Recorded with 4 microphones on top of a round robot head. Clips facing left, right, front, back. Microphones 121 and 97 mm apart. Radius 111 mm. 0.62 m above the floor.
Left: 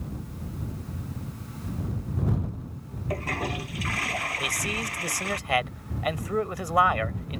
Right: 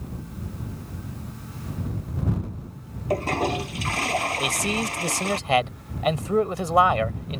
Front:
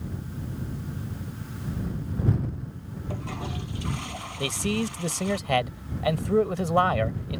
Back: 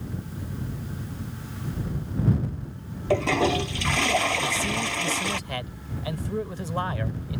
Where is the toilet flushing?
155° right.